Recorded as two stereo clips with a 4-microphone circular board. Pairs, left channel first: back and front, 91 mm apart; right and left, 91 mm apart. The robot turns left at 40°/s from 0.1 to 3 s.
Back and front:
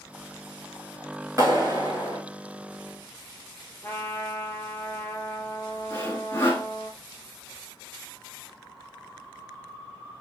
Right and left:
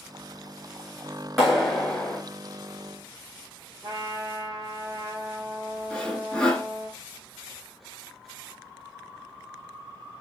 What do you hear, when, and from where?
1.4 s a clap: straight ahead, 1.1 m; by 2.2 s 30° right, 1.1 m
3.8 s a trumpet: 115° left, 0.7 m
5.9 s sawing: 160° right, 0.9 m